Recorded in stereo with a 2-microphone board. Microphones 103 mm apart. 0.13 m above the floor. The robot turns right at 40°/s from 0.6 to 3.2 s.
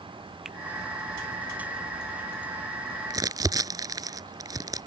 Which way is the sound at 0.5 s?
5° right (ahead or behind).